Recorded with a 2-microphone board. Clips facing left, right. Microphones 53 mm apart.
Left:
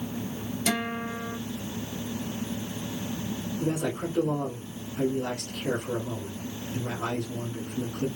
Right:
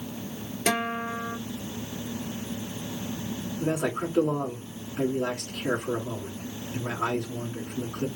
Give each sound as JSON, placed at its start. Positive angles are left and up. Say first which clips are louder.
{"t": 0.7, "sound": "a guitar", "louder": "right 3 dB", "side_deg": -45, "distance_m": 2.0}
{"t": 3.6, "sound": "a man speaking", "louder": "right 2 dB", "side_deg": -70, "distance_m": 3.0}